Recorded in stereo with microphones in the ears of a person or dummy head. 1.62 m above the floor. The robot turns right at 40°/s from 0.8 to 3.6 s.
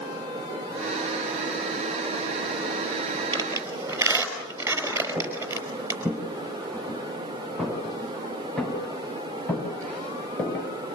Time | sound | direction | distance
3.3 | a squeak | 20° right (ahead or behind) | 5 m
5.2 | footsteps | 10° right (ahead or behind) | 8 m